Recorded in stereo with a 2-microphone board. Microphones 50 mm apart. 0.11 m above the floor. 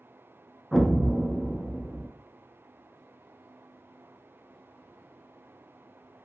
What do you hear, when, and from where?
0.7 s an explosion: 5° right (ahead or behind), 0.5 m